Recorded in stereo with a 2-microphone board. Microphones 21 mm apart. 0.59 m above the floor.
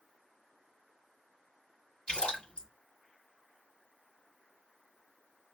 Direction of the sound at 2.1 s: 50° left (ahead or behind).